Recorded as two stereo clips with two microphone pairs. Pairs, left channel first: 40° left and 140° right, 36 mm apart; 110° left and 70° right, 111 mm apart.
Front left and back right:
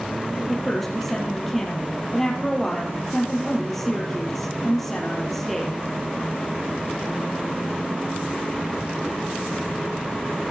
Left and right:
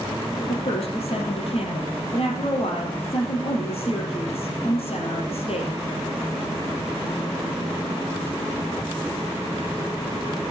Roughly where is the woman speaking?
Behind left.